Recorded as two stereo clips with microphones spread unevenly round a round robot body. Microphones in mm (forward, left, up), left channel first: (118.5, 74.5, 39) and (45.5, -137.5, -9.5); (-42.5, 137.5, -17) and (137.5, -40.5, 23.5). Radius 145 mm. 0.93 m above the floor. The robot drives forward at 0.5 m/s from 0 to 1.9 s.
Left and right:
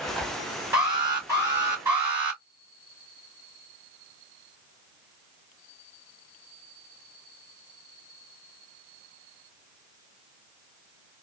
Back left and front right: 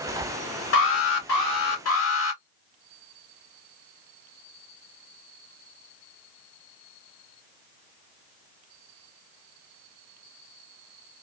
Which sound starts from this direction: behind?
An alarm, at 0.7 s.